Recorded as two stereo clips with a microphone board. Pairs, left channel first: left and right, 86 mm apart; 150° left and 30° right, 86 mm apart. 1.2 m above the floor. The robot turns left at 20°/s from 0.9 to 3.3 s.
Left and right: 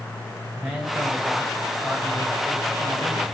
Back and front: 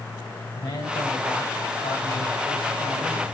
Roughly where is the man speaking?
Behind.